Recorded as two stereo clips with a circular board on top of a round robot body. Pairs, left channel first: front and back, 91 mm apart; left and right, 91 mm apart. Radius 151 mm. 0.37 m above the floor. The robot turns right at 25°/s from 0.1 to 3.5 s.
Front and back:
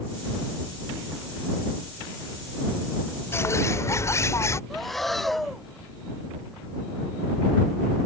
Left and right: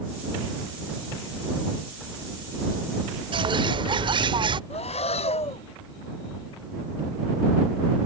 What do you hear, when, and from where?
3.3 s a bird: 65° right; by 4.6 s 60° right
4.7 s breathing: 90° left